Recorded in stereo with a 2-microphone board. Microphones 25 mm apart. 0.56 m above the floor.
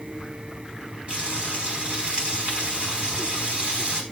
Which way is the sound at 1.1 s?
40° right (ahead or behind).